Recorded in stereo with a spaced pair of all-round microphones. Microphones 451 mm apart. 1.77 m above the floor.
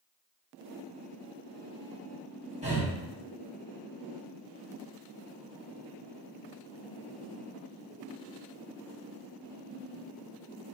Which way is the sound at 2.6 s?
15° right (ahead or behind).